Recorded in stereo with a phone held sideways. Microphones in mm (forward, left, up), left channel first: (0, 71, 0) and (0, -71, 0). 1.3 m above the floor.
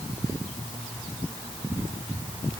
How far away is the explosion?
No explosion in this recording.